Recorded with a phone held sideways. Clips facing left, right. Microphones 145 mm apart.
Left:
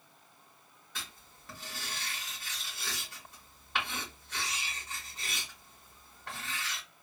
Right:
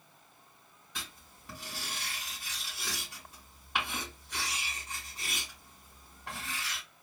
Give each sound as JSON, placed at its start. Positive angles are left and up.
{"t": 0.9, "sound": "writing", "side_deg": -15, "distance_m": 2.5}